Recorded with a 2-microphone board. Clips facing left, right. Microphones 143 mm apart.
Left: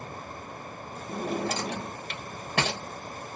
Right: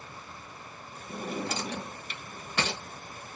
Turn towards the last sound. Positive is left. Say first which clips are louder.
# left 4 dB
turn(degrees=60)  # may be behind; listen again after turning